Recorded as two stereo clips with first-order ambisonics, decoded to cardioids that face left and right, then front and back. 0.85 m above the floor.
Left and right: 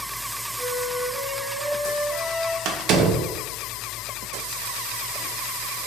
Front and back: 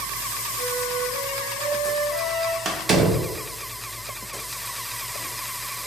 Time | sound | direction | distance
0.6 | a flute | straight behind | 0.7 m
2.6 | a door slam | 120° right | 0.5 m